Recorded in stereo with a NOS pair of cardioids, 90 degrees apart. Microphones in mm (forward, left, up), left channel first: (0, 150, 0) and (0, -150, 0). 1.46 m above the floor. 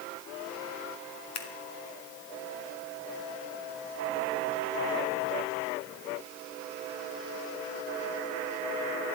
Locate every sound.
1.4 s scissors: 65° left, 1.9 m